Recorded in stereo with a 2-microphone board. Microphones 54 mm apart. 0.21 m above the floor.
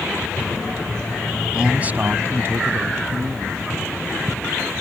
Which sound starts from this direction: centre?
A man speaking, at 1.5 s.